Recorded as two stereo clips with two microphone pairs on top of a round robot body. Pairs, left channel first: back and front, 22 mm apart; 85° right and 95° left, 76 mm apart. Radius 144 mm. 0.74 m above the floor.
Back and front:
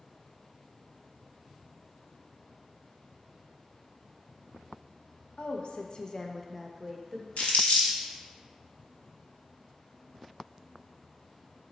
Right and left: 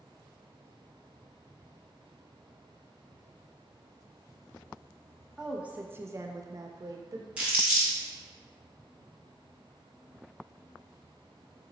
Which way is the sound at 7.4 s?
170° left.